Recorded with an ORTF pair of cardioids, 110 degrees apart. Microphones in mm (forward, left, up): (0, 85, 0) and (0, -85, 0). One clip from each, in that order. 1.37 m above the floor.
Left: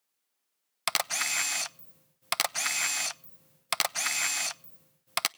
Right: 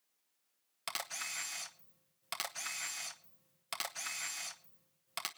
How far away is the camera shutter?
About 0.7 m.